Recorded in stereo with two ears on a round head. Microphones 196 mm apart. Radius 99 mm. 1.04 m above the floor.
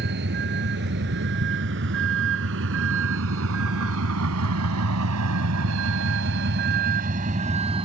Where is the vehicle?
55° right (ahead or behind); by 7.8 s 25° right (ahead or behind).